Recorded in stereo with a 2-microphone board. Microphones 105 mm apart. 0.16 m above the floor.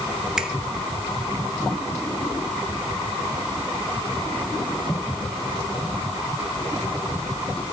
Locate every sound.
0.4 s a finger snap: 5° right (ahead or behind), 2.5 m